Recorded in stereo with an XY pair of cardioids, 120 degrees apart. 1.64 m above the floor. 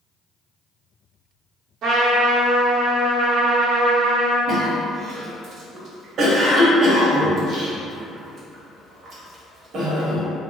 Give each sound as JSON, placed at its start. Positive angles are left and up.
{"t": 1.8, "sound": "a trumpet", "azimuth_deg": -60, "distance_m": 0.9}
{"t": 4.5, "sound": "a cough", "azimuth_deg": -50, "distance_m": 1.0}